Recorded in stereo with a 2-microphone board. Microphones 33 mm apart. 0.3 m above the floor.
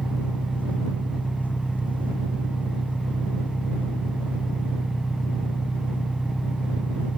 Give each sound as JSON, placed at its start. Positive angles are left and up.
{"t": 0.0, "sound": "an engine running", "side_deg": 55}